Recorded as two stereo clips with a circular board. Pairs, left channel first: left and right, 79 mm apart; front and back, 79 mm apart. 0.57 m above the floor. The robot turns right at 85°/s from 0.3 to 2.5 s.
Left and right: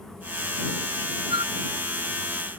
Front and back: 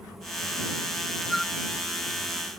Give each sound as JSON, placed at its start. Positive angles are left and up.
{"t": 1.3, "sound": "a flute", "azimuth_deg": -95}